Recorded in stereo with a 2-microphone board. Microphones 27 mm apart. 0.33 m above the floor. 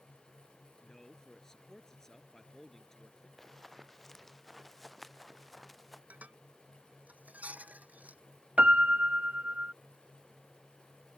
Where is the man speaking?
20° left (ahead or behind).